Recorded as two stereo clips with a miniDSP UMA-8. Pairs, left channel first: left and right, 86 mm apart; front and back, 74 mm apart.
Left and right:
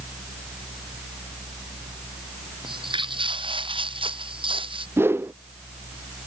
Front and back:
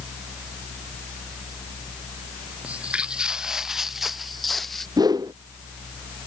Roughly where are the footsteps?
Right.